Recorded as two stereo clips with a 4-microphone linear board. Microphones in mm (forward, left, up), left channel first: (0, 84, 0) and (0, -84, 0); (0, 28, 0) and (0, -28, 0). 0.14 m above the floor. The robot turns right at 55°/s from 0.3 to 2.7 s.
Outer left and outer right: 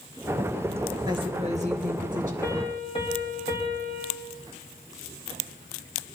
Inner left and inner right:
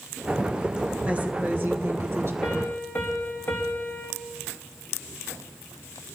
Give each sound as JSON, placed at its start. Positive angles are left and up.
{"t": 1.1, "sound": "a woman speaking", "azimuth_deg": -150, "distance_m": 2.0}
{"t": 2.4, "sound": "a piano", "side_deg": 20, "distance_m": 4.0}